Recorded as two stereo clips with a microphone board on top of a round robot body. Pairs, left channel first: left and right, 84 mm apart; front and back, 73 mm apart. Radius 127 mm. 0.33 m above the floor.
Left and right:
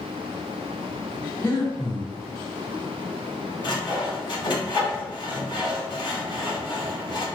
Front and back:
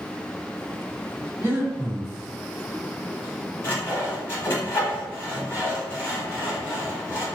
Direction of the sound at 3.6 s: 60° left.